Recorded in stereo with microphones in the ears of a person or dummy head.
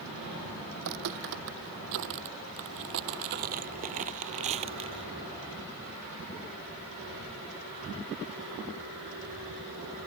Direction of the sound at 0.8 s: 60° right (ahead or behind).